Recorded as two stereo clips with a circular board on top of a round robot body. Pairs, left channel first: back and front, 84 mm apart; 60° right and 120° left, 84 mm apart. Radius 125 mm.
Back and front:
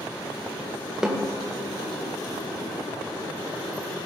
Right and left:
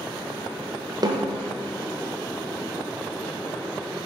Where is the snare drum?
85° left, 1.3 m.